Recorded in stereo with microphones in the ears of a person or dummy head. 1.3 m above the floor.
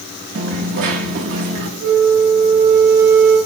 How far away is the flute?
About 4 m.